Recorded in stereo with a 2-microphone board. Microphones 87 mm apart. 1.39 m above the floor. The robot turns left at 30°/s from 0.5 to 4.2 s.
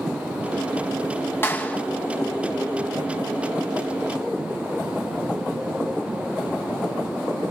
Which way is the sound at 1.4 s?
25° left (ahead or behind).